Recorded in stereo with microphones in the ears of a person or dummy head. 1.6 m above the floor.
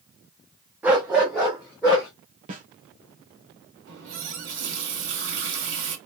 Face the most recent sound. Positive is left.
turn(degrees=-70)  # may be behind; listen again after turning